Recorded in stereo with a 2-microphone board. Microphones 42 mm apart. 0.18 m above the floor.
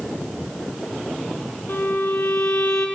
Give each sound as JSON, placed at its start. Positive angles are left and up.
{"t": 1.7, "sound": "a violin", "side_deg": 70, "distance_m": 1.3}